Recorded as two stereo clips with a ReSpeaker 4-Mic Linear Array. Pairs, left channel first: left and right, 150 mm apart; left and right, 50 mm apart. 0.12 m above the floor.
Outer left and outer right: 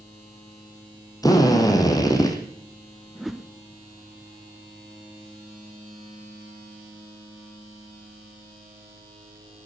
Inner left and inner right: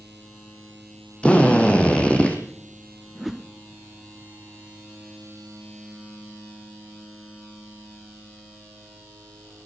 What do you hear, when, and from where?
1.2 s a drill: 20° left (ahead or behind), 4 m
3.1 s a whoosh: centre (ahead or behind), 1.1 m